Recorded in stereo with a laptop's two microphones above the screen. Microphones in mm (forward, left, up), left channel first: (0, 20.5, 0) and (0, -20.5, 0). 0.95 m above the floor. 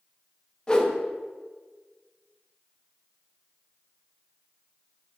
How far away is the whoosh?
About 0.6 m.